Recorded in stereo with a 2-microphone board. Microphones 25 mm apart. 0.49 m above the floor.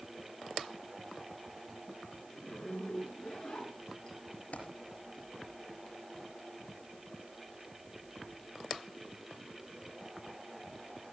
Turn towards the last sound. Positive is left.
turn(degrees=70)  # may be behind; listen again after turning